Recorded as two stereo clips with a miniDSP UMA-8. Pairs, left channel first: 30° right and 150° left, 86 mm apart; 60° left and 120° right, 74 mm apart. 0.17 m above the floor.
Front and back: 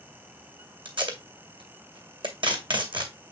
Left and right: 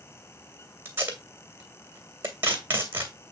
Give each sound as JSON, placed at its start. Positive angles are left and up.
{"t": 0.8, "sound": "tape being pulled", "azimuth_deg": 175, "distance_m": 2.0}